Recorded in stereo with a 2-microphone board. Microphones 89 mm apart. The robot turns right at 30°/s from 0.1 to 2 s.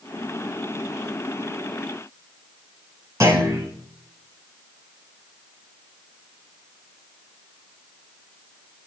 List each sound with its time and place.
3.2 s a clunk: 35° right (ahead or behind), 5 m